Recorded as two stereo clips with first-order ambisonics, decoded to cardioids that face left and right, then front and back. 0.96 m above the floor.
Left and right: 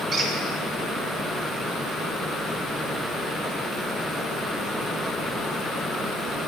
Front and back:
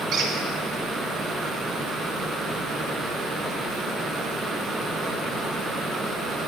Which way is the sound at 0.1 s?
150° right.